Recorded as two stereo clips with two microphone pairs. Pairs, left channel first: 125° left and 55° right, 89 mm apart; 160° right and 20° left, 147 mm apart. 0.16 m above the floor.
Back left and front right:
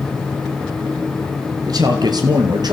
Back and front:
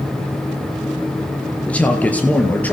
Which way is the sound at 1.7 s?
85° right.